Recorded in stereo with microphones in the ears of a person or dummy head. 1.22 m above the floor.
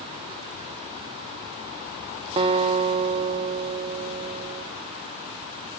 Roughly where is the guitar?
Right.